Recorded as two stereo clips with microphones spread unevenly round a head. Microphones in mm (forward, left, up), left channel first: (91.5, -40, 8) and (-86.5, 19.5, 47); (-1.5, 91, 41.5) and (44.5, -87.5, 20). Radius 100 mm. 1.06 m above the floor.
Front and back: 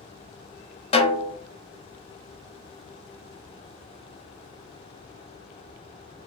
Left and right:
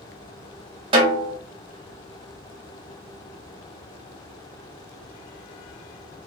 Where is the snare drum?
55° right, 0.9 m.